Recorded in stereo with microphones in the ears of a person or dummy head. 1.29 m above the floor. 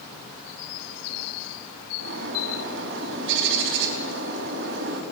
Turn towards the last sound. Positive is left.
turn(degrees=-65)  # may be behind; listen again after turning